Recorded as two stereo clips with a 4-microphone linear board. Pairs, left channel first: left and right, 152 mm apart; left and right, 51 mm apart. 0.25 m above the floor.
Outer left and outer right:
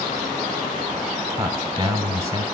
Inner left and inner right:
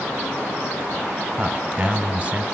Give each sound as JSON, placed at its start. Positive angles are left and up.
{"t": 1.4, "sound": "a man speaking", "side_deg": -20, "distance_m": 1.3}